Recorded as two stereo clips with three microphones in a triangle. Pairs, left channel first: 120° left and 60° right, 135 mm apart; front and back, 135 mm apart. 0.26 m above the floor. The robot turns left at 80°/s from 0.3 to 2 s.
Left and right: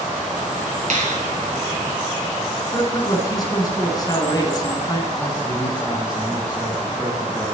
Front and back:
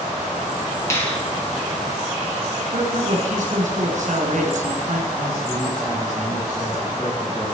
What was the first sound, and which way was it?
A finger snap, 65° right.